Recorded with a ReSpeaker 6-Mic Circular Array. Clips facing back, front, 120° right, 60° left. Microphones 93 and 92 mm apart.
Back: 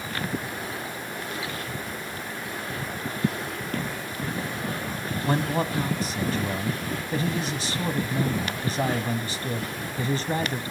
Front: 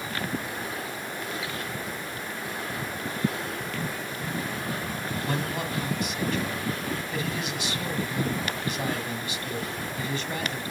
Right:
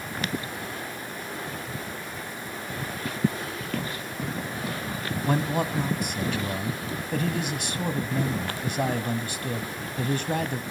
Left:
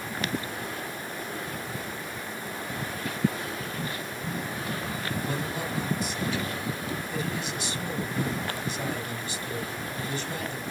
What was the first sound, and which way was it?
Running footsteps, 125° right.